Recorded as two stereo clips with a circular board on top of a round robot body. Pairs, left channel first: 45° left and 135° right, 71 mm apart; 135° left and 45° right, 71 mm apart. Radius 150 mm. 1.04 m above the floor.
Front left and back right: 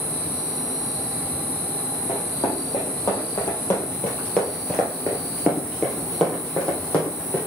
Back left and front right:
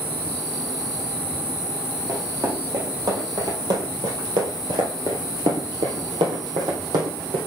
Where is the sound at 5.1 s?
80° right, 1.2 m; by 7.4 s 30° right, 3.5 m.